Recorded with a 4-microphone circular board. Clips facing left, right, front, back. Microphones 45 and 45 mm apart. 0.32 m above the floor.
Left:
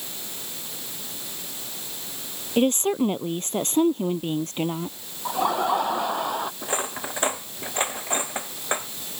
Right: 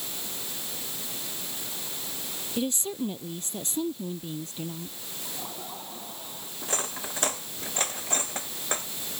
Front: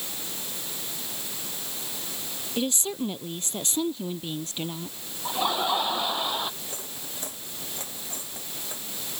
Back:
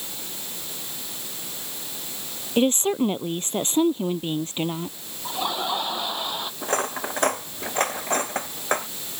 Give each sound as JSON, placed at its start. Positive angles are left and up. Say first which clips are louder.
{"t": 2.6, "sound": "a woman speaking", "louder": "left 10 dB, back 8 dB", "azimuth_deg": 130}
{"t": 5.2, "sound": "laughter", "louder": "left 19 dB, front 1 dB", "azimuth_deg": 85}
{"t": 6.6, "sound": "cutlery clinking", "louder": "left 5 dB, back 14 dB", "azimuth_deg": 160}